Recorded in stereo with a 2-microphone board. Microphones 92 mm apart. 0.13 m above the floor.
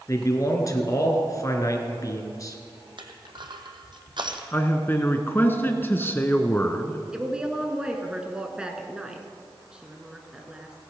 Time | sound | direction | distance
0.1 | a man speaking | 40° left (ahead or behind) | 1.7 m
3.0 | crushing | 60° right (ahead or behind) | 1.3 m
4.5 | a man speaking | 25° left (ahead or behind) | 1.1 m
7.1 | a woman speaking | 10° right (ahead or behind) | 1.5 m